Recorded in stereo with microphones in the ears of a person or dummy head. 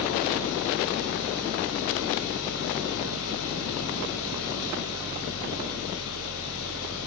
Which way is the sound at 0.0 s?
75° left (ahead or behind).